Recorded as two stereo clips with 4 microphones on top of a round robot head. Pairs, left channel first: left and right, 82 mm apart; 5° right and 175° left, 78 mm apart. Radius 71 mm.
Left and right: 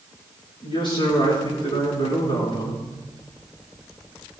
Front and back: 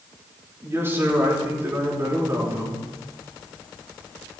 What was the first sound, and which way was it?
A man speaking, 115° left.